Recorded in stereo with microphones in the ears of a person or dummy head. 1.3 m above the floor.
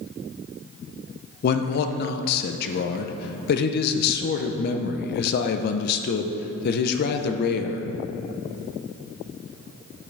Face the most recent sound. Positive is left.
turn(degrees=55)  # may be behind; listen again after turning